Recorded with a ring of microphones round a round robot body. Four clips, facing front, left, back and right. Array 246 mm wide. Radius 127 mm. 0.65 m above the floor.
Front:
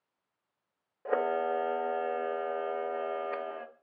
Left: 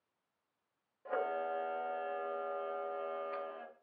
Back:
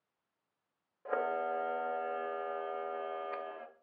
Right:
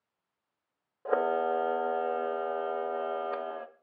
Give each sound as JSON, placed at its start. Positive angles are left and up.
{"t": 1.1, "sound": "a camera shutter", "azimuth_deg": -60, "distance_m": 1.2}